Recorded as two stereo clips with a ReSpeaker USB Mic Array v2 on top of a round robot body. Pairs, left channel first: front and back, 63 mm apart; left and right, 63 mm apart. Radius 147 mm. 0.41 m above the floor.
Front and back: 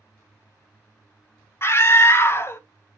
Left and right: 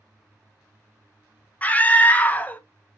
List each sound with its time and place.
1.6 s a scream: 30° left, 1.0 m